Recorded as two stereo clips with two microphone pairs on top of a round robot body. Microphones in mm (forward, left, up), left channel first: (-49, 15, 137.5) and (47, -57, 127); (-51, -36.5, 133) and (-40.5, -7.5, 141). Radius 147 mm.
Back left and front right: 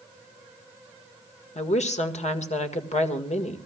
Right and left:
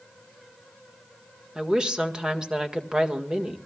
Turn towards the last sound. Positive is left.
turn(degrees=140)